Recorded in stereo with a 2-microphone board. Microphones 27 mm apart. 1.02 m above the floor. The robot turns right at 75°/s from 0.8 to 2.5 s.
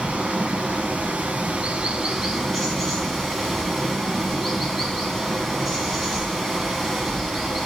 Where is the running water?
120° right, 2.5 m; by 7.7 s 5° left, 2.5 m.